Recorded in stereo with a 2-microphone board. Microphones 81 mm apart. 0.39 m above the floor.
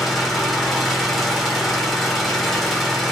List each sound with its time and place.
0.0 s an engine running: centre (ahead or behind), 0.7 m